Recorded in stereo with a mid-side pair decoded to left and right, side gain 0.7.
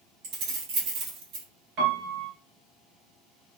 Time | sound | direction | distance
0.2 | keys jangling | 60° right | 1.9 m
1.8 | a piano | 60° right | 1.8 m